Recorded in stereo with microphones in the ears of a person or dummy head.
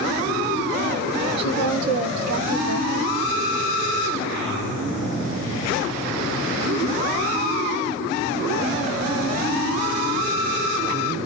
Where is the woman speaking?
25° right (ahead or behind), 1.1 m; by 3.1 s 75° right (ahead or behind), 1.1 m.